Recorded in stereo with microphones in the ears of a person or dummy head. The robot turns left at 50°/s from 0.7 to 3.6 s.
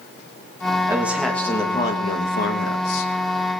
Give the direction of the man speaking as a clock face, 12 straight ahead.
6 o'clock.